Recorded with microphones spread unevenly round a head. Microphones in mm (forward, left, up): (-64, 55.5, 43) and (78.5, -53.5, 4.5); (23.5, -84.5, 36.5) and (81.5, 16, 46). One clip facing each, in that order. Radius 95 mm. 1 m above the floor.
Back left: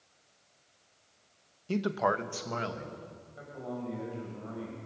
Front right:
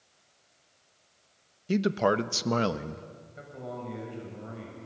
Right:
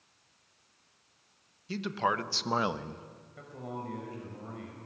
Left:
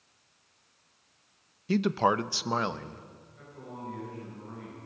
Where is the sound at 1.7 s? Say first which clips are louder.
Front right 5 dB, left 6 dB; 30° left, 1.0 m; by 3.1 s 55° right, 1.3 m.